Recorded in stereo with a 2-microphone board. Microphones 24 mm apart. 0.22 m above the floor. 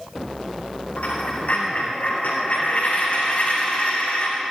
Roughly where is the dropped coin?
Left.